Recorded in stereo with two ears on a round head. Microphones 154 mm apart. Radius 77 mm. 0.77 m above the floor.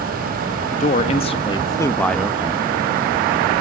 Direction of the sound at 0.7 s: 40° left (ahead or behind).